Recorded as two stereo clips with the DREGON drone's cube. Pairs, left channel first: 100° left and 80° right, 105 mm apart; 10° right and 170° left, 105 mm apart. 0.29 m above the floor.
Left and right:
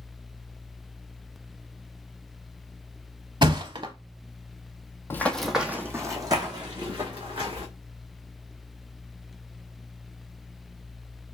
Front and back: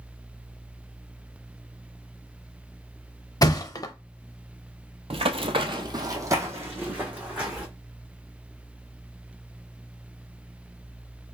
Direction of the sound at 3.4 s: 60° right.